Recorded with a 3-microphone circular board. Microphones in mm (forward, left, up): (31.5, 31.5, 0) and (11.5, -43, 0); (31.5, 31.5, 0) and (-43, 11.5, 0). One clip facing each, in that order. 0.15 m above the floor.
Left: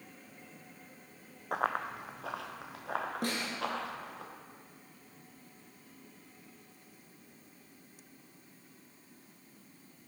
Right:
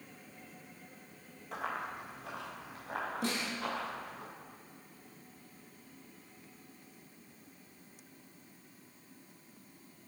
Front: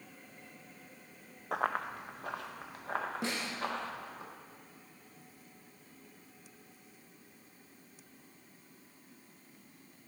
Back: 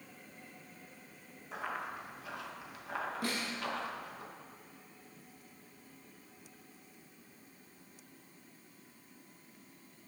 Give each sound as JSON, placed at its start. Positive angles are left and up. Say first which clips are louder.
{"t": 1.5, "sound": "running footsteps", "louder": "left 6 dB, front 6 dB", "azimuth_deg": 40, "distance_m": 0.6}
{"t": 3.2, "sound": "a snare drum", "louder": "even, even", "azimuth_deg": 75, "distance_m": 1.6}